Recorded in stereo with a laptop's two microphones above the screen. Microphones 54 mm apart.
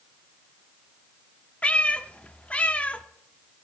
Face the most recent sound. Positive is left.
turn(degrees=25)  # may be behind; listen again after turning